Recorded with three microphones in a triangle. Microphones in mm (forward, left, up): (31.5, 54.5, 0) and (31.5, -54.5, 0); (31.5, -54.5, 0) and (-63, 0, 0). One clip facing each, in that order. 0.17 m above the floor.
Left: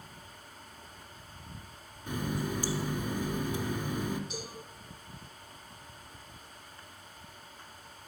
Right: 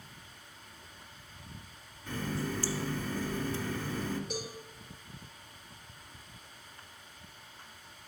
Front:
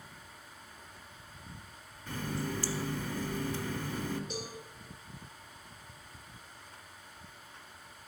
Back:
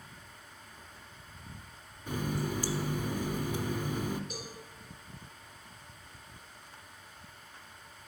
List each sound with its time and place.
2.1 s a running tap: 120° left, 0.7 m
4.3 s a cowbell: 85° right, 4 m